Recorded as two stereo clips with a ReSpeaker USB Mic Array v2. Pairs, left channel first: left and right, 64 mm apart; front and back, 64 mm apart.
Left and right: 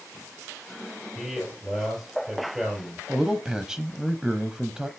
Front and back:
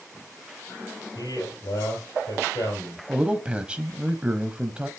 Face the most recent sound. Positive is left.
turn(degrees=-155)